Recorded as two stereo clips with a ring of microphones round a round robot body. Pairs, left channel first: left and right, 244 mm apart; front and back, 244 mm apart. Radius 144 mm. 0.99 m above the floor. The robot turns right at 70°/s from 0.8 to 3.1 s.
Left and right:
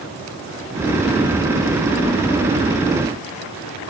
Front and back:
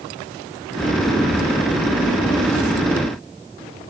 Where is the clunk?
No clunk in this recording.